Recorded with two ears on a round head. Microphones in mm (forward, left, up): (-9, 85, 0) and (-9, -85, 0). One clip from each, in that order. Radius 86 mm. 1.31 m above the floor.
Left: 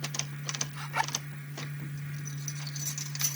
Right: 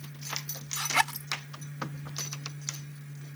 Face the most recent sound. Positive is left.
turn(degrees=-75)  # may be behind; listen again after turning